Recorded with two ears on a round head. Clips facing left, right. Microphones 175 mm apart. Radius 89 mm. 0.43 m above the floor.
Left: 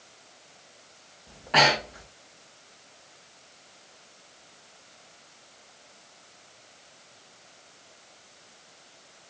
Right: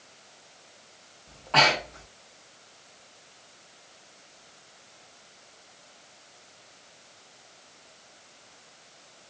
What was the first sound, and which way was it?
Breathing, 15° left (ahead or behind).